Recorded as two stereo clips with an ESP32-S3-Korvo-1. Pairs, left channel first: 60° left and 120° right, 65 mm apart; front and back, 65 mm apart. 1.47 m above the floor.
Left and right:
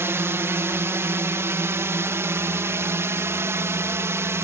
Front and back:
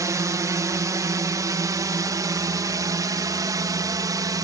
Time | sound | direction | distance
0.0 | a drone | 165° right | ?